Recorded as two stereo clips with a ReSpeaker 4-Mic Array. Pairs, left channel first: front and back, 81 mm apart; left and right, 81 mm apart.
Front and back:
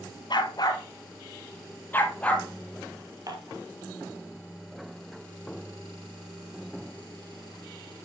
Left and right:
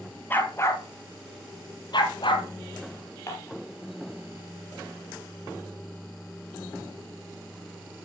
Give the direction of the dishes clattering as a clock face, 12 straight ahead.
7 o'clock.